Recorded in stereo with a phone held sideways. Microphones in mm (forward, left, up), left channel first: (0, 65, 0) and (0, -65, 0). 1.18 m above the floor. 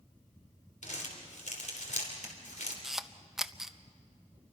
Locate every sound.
0.8 s crumpling: 65° left (ahead or behind), 3.5 m
2.8 s a camera shutter: 5° right (ahead or behind), 0.6 m